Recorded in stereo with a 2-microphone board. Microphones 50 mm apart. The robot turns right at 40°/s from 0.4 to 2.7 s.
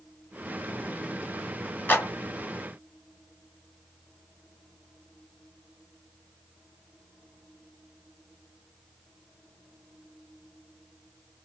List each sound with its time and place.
1.9 s a clap: 40° left (ahead or behind), 1.5 m; by 2.1 s 35° left (ahead or behind), 1.5 m